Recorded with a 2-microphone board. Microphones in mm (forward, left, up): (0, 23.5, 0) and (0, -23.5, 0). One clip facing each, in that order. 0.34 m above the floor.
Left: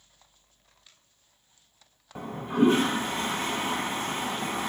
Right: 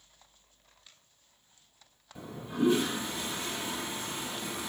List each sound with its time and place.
2.1 s a toilet flushing: 50° left (ahead or behind), 1.2 m